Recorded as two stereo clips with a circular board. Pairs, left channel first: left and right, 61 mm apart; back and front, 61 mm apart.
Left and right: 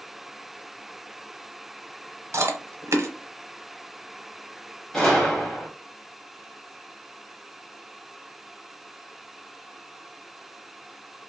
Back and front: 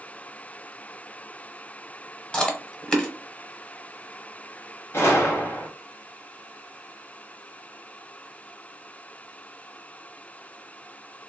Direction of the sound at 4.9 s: 165° left.